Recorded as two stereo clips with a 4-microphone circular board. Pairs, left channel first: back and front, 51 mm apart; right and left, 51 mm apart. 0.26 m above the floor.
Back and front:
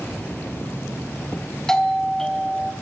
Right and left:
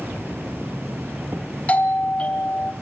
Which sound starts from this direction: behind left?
An insect, at 0.0 s.